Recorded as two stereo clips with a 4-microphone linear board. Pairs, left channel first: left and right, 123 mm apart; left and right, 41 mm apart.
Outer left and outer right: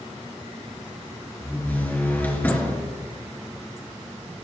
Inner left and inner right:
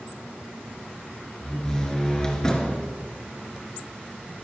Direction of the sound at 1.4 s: 15° left (ahead or behind).